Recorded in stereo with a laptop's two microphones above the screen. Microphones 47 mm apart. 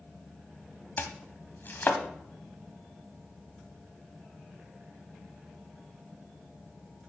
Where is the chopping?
50° left (ahead or behind), 1.4 m.